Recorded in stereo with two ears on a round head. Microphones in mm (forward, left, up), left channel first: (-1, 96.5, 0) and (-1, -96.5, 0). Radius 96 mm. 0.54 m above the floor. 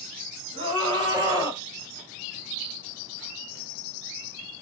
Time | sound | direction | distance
0.5 | a scream | 30° right (ahead or behind) | 2 m